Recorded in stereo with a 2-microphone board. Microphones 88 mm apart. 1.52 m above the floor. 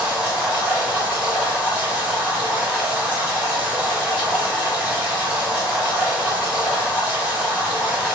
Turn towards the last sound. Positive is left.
turn(degrees=-20)  # may be behind; listen again after turning